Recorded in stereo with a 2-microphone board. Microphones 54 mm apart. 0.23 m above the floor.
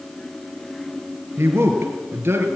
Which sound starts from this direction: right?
A man speaking, at 1.4 s.